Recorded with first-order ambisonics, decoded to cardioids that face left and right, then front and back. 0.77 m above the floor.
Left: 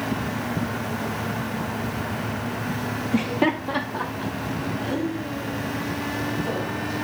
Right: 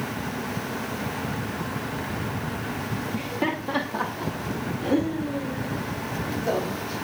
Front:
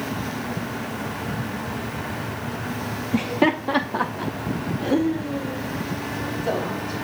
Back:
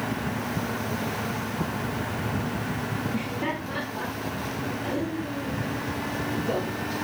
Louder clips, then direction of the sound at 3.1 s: Left 6 dB, front 8 dB; 55° left.